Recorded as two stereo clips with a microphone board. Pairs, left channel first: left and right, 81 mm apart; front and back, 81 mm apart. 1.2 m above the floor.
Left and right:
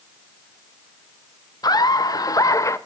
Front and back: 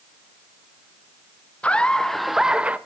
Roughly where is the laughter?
Left.